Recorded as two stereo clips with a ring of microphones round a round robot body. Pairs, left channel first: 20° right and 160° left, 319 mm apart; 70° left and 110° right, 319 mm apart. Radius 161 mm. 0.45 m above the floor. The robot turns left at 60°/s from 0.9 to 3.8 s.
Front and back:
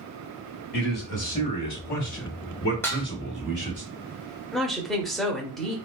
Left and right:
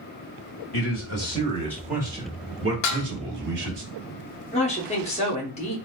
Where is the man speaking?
35° left, 1.4 m; by 3.8 s 140° right, 1.4 m.